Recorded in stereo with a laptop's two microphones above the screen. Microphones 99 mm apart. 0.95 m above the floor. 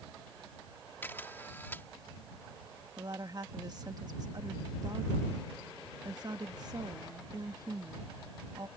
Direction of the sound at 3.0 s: 45° right (ahead or behind).